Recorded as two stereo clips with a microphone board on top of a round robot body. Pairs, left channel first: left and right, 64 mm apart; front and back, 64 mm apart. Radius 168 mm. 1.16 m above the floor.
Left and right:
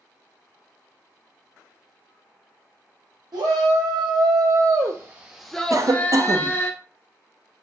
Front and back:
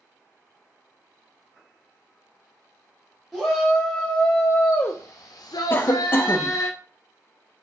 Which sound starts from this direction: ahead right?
A cough, at 5.7 s.